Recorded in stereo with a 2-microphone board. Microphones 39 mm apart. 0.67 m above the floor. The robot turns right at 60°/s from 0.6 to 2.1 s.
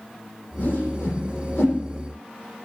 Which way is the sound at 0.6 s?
50° left (ahead or behind).